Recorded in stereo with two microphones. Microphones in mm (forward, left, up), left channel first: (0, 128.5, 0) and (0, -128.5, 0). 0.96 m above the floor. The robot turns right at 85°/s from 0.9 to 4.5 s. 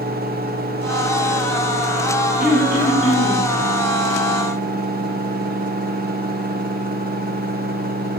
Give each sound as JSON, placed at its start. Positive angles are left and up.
{"t": 2.4, "sound": "throat clearing", "azimuth_deg": -5, "distance_m": 1.3}